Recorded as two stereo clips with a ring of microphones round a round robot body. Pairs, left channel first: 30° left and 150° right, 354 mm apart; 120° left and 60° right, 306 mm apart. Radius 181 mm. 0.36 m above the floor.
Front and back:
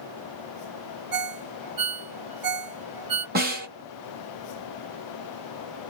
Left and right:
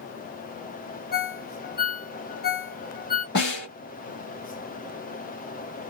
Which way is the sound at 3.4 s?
160° left.